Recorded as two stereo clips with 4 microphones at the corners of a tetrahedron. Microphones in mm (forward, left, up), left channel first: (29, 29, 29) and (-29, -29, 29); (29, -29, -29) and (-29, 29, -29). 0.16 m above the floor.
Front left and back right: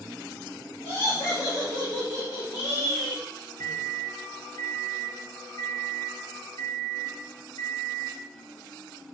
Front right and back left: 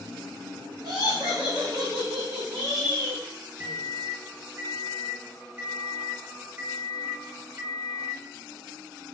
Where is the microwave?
75° left, 2.5 m.